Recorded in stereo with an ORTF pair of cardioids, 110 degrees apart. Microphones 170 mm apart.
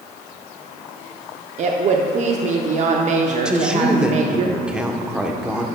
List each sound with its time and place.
1.6 s a woman speaking: 45° right, 0.7 m
3.5 s a woman speaking: 5° right, 0.9 m